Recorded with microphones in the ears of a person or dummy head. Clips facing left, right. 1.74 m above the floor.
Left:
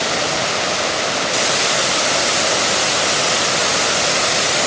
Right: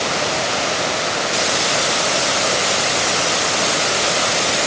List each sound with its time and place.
Only background noise.